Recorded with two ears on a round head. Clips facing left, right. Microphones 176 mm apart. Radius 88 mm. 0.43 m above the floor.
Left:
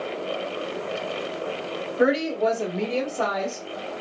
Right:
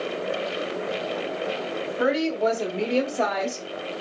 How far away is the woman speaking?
About 1.4 m.